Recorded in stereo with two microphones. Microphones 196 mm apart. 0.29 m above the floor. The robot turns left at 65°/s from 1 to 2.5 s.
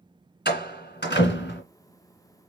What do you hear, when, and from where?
0.5 s a door slam: 55° left (ahead or behind), 1.9 m; by 1.6 s 65° left (ahead or behind), 1.9 m